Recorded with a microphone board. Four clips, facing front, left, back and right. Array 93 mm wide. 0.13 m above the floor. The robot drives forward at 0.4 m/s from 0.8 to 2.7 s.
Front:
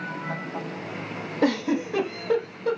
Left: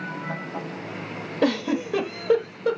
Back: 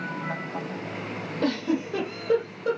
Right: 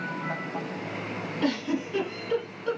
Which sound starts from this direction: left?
A giggle, at 1.4 s.